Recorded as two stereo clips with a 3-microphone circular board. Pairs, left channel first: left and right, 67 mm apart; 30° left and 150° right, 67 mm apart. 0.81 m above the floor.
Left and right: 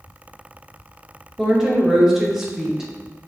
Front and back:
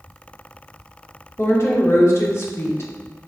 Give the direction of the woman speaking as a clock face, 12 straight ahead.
12 o'clock.